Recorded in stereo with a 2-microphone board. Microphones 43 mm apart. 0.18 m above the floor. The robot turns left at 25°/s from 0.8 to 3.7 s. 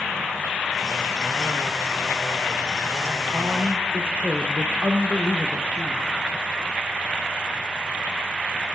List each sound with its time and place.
3.3 s a man speaking: 75° right (ahead or behind), 4 m